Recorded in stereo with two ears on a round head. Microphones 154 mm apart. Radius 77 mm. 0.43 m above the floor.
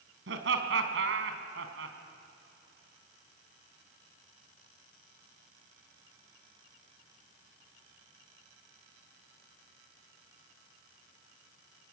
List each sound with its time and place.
0.3 s laughter: 75° right (ahead or behind), 3.5 m